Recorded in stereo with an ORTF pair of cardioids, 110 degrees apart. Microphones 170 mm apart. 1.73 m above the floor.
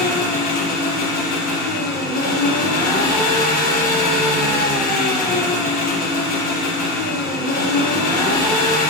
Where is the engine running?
65° left, 3.5 m.